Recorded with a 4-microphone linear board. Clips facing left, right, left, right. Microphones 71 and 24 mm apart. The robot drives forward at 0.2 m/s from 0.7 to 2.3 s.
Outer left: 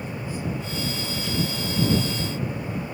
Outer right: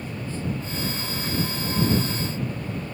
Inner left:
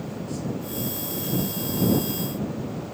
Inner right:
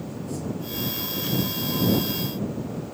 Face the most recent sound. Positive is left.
No sound to turn to.